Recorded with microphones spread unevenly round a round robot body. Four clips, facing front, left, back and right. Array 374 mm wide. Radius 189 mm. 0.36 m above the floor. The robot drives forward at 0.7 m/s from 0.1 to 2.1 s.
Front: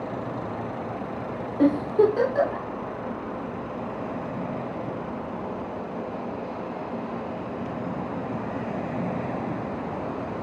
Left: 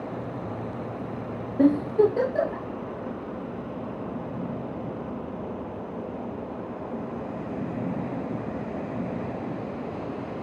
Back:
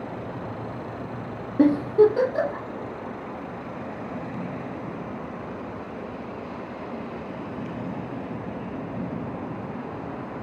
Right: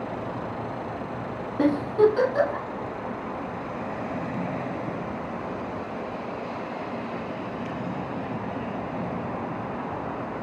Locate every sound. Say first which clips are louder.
1.6 s a giggle: even, back 2 dB; straight behind, 0.5 m